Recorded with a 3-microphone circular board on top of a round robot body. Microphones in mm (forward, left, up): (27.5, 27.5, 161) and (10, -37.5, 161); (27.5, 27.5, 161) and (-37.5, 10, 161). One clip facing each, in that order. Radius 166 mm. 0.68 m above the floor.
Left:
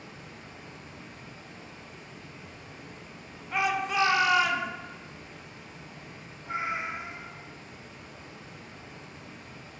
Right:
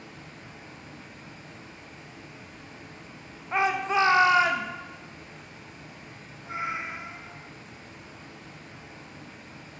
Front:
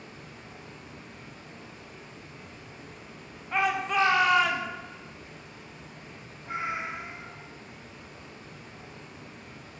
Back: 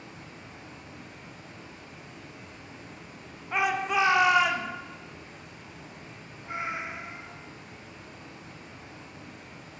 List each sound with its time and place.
0.0 s running water: 170° left, 1.0 m
3.5 s a shout: 90° right, 0.6 m
6.4 s a cat meowing: 125° left, 1.6 m